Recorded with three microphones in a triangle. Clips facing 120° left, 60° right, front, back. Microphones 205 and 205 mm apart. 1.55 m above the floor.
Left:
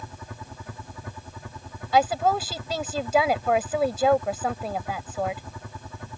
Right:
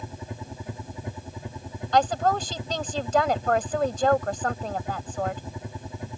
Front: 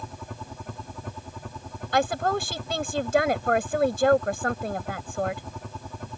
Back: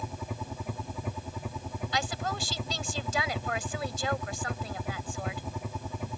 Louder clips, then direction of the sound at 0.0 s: Right 4 dB, back 1 dB; 100° right.